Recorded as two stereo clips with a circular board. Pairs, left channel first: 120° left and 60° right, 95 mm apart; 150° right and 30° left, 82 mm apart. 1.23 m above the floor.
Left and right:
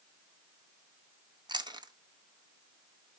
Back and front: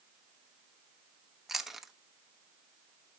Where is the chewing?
55° right, 0.7 m.